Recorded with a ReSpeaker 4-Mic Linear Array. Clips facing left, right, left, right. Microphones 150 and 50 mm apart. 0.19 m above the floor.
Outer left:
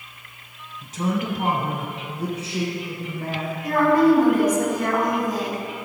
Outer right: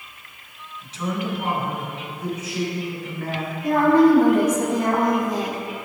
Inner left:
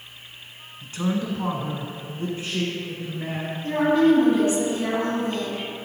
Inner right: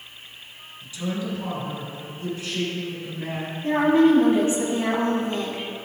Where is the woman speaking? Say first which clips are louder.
Outer right 2 dB, inner right 1 dB; 30° right (ahead or behind), 1.2 m.